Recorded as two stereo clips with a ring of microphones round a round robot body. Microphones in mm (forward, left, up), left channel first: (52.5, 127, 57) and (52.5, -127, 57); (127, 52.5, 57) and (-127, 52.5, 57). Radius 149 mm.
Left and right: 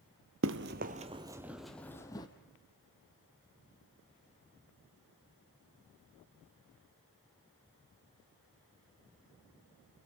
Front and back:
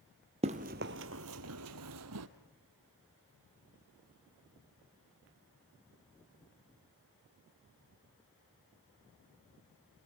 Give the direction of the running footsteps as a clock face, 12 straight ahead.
4 o'clock.